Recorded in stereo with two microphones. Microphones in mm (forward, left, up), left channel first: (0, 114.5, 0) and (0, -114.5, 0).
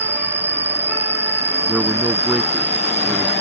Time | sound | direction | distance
0.0 | an insect | 50° right (ahead or behind) | ?
1.7 | a man speaking | 5° right (ahead or behind) | ?